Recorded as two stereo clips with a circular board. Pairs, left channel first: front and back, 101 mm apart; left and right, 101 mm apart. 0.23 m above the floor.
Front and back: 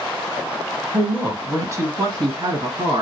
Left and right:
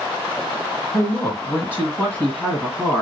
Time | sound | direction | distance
0.9 | a woman speaking | 120° left | 1.2 m